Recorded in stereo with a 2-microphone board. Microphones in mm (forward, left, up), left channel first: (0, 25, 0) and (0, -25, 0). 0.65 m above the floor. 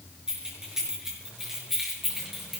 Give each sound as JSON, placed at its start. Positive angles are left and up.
{"t": 0.3, "sound": "keys jangling", "side_deg": -10, "distance_m": 7.0}